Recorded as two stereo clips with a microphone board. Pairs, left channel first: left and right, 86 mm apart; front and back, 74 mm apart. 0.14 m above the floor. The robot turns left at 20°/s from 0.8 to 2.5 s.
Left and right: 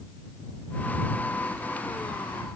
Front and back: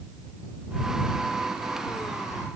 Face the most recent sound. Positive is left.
No sound to turn to.